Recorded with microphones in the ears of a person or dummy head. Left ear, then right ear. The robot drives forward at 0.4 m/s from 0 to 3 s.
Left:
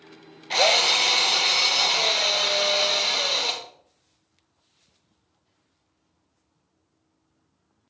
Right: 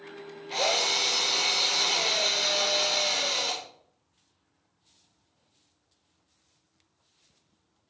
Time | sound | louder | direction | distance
0.5 | a drill | left 7 dB | 40° left (ahead or behind) | 0.8 m